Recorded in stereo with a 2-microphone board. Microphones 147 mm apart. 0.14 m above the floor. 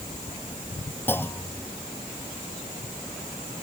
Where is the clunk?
15° left (ahead or behind).